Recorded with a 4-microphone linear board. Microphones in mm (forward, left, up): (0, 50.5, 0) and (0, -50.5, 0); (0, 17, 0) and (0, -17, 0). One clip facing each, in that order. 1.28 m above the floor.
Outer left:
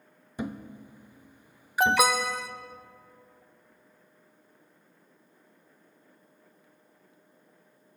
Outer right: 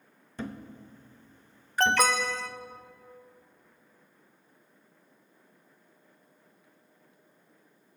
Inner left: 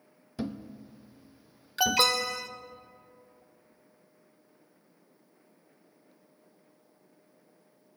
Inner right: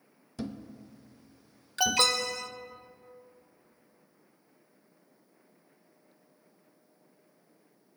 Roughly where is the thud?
Centre.